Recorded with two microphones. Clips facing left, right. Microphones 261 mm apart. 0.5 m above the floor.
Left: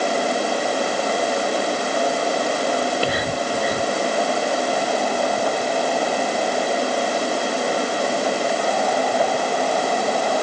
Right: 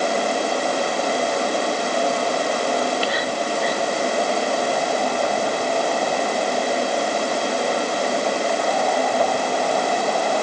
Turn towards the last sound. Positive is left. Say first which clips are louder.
# left 1 dB
turn(degrees=50)  # may be behind; listen again after turning